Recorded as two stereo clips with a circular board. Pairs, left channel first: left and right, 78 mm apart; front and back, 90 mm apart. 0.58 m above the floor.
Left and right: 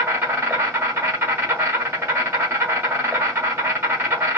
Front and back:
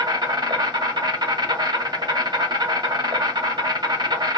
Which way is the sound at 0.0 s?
145° right.